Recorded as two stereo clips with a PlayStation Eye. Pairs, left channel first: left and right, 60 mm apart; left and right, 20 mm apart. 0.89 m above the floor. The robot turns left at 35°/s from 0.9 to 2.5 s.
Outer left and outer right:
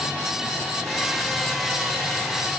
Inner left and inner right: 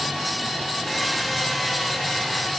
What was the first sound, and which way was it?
Only background noise.